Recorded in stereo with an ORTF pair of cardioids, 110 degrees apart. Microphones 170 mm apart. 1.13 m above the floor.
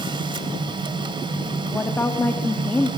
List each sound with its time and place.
0.0 s a machine running: 30° right, 2.5 m
1.7 s a woman speaking: 10° left, 2.5 m